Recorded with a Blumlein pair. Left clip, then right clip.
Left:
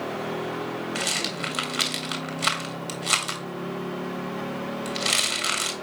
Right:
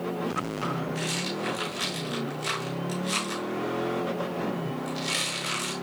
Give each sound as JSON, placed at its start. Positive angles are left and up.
{"t": 0.9, "sound": "a rattle", "azimuth_deg": 50, "distance_m": 2.0}